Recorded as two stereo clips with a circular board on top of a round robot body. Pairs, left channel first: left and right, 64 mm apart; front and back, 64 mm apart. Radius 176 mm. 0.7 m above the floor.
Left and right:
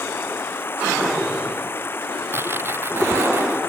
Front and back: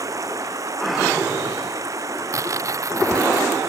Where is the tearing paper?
140° right.